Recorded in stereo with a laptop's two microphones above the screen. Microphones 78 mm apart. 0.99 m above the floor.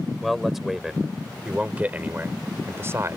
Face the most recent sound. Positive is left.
turn(degrees=-40)  # may be behind; listen again after turning